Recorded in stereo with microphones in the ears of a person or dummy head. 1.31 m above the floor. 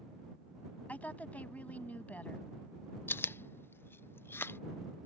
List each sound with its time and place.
0.9 s a woman speaking: 5° left (ahead or behind)
3.1 s chewing: 10° left (ahead or behind)